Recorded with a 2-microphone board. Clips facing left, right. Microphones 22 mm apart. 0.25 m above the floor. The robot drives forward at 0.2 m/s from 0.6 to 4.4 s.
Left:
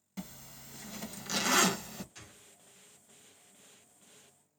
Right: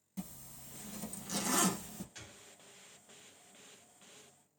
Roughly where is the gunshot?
Right.